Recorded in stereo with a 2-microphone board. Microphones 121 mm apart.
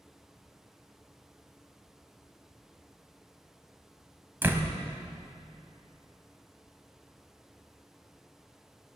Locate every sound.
4.4 s a door slam: 15° right (ahead or behind), 1.6 m